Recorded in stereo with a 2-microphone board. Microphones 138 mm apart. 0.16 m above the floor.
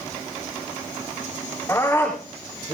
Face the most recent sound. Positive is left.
turn(degrees=15)  # may be behind; listen again after turning